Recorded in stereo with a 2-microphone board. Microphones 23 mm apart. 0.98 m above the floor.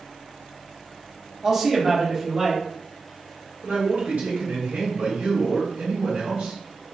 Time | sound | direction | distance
1.4 | a man speaking | 15° right (ahead or behind) | 0.9 m
3.6 | a man speaking | 70° right (ahead or behind) | 1.4 m